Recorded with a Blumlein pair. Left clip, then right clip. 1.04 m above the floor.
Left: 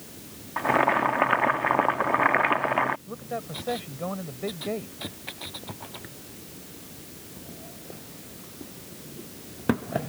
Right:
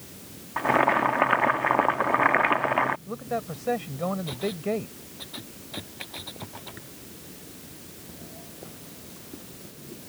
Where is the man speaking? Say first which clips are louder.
Right 3 dB; 10° right.